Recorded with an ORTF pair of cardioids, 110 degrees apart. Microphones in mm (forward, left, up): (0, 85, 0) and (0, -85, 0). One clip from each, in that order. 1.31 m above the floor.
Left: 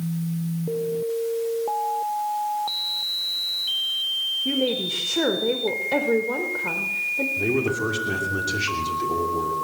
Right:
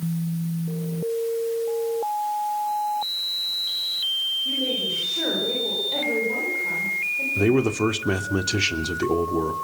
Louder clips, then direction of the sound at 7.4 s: Right 2 dB; 60° right.